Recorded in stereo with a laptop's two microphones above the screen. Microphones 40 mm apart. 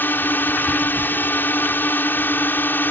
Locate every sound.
0.0 s a drone: 55° left (ahead or behind)